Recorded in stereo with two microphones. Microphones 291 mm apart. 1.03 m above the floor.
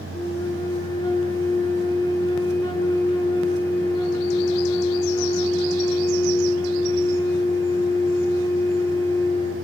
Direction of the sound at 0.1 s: 15° left (ahead or behind).